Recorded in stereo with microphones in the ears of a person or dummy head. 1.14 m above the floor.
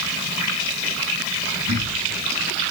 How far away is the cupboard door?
About 3 m.